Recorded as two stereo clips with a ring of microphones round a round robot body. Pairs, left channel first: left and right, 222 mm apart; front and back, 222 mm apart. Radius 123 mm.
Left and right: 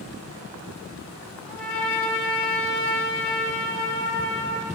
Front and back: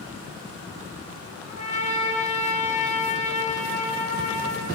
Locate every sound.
1.5 s a trumpet: 60° left, 1.5 m